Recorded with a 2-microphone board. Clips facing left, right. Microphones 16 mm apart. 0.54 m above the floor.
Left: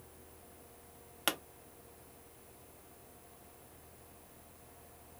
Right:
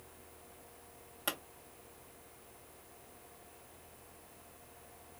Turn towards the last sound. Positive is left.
turn(degrees=45)  # may be behind; listen again after turning